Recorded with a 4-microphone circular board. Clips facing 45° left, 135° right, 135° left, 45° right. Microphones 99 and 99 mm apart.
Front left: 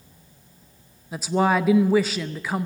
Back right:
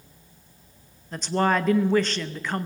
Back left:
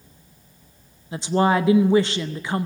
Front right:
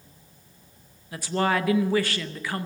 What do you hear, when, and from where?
1.1 s a woman speaking: 115° left, 0.7 m